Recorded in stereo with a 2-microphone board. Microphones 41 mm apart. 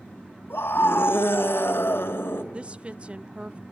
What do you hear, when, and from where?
0.5 s a scream: 70° left (ahead or behind), 2.5 m
2.5 s a woman speaking: 30° right (ahead or behind), 0.7 m